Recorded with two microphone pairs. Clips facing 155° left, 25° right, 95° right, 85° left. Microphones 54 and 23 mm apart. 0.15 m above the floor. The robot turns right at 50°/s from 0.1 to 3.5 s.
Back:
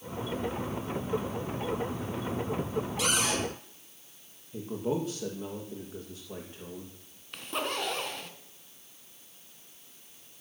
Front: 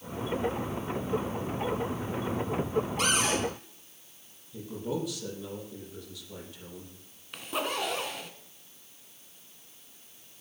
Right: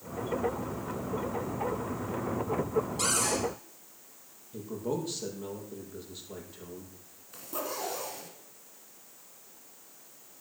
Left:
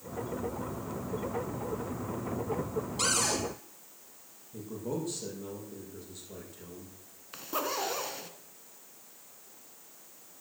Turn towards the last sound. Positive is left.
turn(degrees=55)